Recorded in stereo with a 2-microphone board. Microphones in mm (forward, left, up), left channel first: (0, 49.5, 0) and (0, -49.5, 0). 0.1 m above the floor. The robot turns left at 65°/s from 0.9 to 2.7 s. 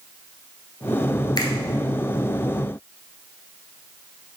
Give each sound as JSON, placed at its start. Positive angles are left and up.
{"t": 1.4, "sound": "a finger snap", "side_deg": 45, "distance_m": 1.4}